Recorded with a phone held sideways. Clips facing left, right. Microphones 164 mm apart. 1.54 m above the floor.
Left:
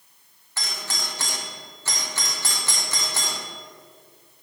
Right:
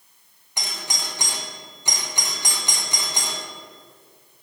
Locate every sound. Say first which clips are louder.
0.6 s a doorbell: right 1 dB; 15° right (ahead or behind), 1.0 m